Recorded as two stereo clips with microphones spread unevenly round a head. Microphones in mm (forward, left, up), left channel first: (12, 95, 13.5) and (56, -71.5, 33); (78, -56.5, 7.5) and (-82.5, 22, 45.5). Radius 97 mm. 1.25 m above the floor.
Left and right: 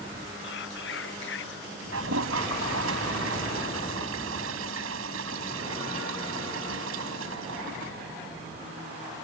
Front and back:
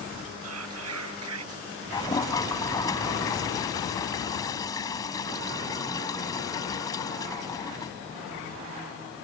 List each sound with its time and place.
0.4 s whispering: 140° left
1.9 s a toilet flushing: 100° right